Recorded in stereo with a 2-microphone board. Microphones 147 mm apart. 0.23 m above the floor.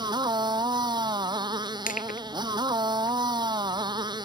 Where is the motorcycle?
30° right (ahead or behind).